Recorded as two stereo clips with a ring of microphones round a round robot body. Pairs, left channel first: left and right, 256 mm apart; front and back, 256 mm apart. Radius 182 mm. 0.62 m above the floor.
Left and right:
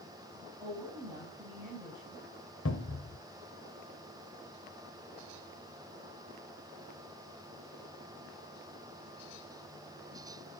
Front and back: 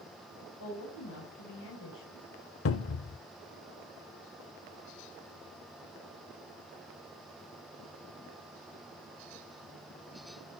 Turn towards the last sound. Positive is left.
turn(degrees=35)